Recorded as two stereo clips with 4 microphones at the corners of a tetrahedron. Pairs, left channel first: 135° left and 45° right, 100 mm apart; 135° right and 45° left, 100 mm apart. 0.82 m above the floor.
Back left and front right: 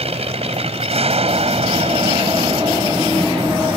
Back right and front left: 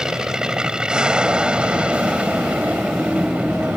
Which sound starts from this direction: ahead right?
An aircraft, at 0.0 s.